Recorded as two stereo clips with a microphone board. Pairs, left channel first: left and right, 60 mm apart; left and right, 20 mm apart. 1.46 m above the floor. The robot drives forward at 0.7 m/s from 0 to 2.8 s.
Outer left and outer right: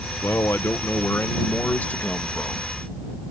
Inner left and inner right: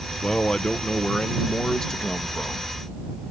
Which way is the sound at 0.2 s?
50° left (ahead or behind).